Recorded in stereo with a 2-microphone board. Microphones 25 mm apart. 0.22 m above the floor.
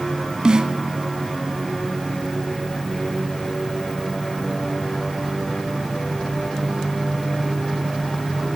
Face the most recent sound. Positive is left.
turn(degrees=-35)  # may be behind; listen again after turning